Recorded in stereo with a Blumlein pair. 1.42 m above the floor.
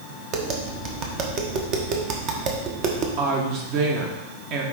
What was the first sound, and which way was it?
Tapping, 35° right.